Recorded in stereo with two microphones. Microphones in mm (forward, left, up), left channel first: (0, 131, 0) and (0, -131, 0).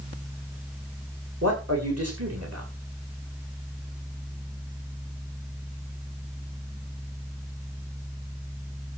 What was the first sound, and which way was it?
A man speaking, 65° right (ahead or behind).